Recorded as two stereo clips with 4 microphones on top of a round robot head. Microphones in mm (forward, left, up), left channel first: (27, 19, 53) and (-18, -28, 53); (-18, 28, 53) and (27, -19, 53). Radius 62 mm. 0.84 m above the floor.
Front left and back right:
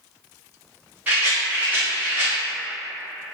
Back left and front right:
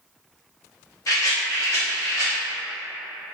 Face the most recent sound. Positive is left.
turn(degrees=165)